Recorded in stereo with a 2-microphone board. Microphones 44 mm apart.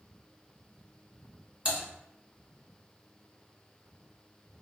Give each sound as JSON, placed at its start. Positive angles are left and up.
{"t": 1.6, "sound": "typing on a keyboard", "side_deg": -25, "distance_m": 1.9}